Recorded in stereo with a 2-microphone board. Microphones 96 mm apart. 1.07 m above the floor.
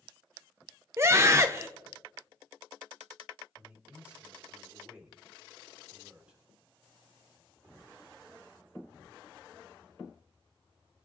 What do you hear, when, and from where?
1.0 s a scream: 30° right (ahead or behind), 0.7 m
3.5 s a man speaking: 15° right (ahead or behind), 3 m